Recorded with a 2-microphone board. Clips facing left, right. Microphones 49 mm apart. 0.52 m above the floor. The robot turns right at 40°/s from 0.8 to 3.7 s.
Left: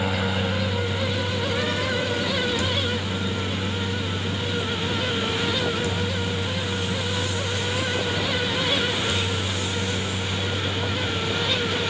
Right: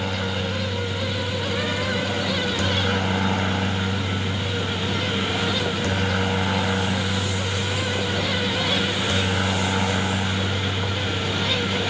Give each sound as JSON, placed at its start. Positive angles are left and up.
{"t": 0.0, "sound": "a helicopter", "azimuth_deg": 170}